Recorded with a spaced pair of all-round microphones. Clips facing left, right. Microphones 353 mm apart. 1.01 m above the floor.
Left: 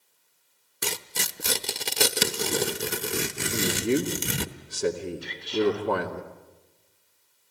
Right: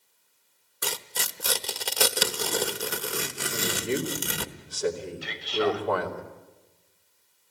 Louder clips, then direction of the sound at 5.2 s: Left 2 dB; 75° right (ahead or behind).